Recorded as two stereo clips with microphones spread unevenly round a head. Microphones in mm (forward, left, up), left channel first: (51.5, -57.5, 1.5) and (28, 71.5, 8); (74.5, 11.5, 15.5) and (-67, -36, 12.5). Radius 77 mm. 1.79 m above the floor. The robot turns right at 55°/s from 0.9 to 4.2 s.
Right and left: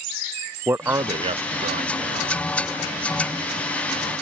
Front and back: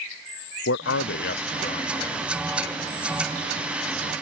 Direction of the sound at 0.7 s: 30° left.